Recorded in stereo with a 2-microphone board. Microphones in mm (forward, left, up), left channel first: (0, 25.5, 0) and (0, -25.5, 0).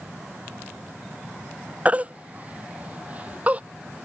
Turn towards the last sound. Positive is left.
turn(degrees=-30)  # may be behind; listen again after turning